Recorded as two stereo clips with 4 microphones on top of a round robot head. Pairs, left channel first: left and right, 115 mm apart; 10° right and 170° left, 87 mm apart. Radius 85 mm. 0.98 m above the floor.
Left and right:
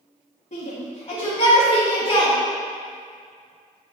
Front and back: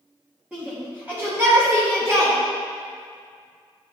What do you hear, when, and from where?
0.5 s a shout: 95° left, 2.5 m; by 2.3 s 120° left, 1.8 m